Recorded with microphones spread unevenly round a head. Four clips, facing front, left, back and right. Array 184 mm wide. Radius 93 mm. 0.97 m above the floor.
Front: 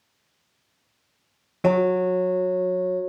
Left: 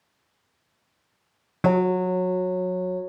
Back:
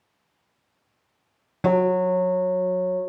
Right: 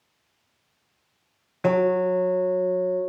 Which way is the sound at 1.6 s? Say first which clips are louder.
Right 1 dB, even; 115° left.